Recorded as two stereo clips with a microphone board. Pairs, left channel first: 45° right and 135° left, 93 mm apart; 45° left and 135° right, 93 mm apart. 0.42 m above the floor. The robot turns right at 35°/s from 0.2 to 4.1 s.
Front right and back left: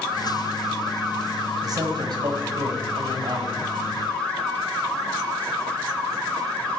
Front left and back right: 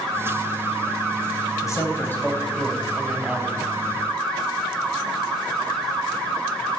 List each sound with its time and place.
1.6 s a man speaking: 95° left, 3 m; by 3.6 s 160° left, 3 m